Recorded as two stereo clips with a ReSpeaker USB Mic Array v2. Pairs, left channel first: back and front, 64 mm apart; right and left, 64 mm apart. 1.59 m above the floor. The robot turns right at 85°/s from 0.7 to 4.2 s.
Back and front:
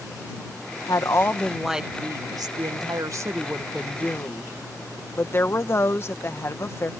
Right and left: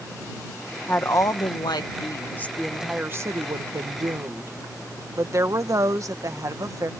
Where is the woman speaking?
155° right; by 6.9 s 125° left.